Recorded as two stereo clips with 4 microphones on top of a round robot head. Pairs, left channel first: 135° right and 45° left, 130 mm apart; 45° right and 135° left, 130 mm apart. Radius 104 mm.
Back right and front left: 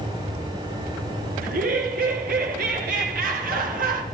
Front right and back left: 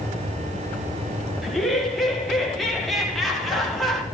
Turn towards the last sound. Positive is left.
turn(degrees=45)